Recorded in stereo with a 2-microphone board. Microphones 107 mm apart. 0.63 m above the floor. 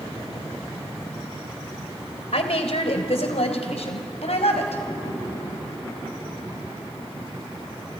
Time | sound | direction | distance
2.3 | a woman speaking | 75° left (ahead or behind) | 2.5 m